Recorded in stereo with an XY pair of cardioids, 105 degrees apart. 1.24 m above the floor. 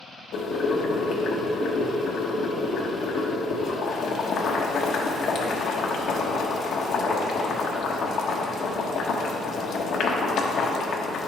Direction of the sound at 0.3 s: 65° left.